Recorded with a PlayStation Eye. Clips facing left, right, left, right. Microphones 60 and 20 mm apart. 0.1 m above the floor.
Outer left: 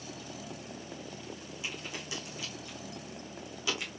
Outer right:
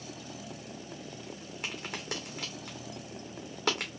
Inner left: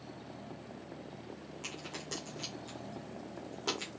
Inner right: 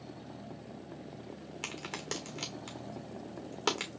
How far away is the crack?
About 1.4 m.